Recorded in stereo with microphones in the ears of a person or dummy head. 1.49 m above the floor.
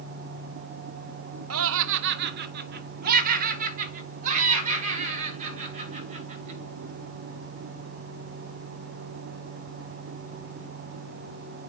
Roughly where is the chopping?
I don't hear chopping.